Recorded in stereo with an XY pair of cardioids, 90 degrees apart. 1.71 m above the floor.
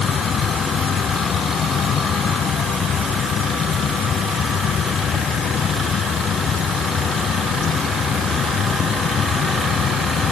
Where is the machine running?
60° left.